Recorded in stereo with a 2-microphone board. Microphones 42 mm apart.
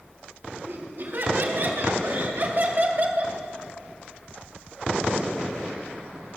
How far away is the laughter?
About 3.5 m.